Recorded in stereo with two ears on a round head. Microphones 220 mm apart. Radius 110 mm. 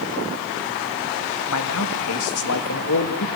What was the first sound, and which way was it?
A man speaking, 65° left (ahead or behind).